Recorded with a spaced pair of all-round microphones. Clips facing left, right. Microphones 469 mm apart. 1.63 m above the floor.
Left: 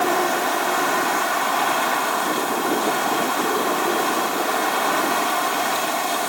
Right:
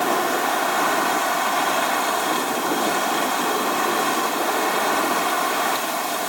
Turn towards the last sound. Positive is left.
No sound to turn to.